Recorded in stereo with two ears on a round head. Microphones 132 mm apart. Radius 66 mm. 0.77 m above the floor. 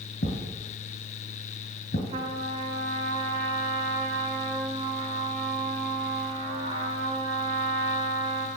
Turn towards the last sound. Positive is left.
turn(degrees=-45)  # may be behind; listen again after turning